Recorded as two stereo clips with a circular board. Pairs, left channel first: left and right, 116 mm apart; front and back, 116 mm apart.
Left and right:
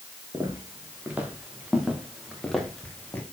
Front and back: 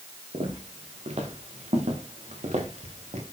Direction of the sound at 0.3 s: 155° right.